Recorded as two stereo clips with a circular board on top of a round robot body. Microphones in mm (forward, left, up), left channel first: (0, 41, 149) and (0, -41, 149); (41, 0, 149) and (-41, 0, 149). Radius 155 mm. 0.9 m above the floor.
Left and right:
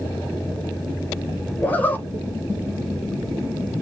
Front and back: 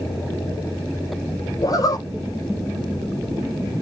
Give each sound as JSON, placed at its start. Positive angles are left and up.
{"t": 1.6, "sound": "a zipper", "azimuth_deg": 25, "distance_m": 1.2}